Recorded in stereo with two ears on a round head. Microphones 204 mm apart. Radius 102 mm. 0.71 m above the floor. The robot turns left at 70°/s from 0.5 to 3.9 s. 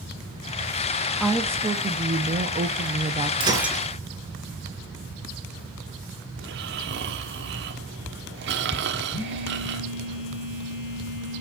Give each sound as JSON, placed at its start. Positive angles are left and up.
{"t": 1.2, "sound": "a woman speaking", "azimuth_deg": 0, "distance_m": 0.9}
{"t": 3.4, "sound": "breaking glass", "azimuth_deg": -155, "distance_m": 3.0}
{"t": 6.4, "sound": "snoring", "side_deg": -50, "distance_m": 1.5}
{"t": 9.1, "sound": "a phone buzzing", "side_deg": 55, "distance_m": 6.0}